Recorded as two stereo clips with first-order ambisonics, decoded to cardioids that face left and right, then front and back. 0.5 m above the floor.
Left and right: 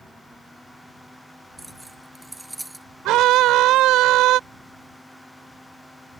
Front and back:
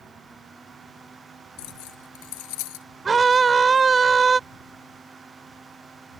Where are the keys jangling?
5° right.